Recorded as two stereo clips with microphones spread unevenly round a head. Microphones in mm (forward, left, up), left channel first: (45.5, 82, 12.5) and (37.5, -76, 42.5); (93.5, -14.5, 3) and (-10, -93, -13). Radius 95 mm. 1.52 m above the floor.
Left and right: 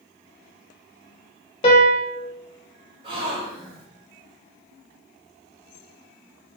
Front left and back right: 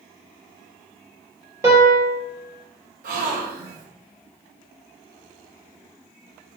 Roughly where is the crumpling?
No crumpling in this recording.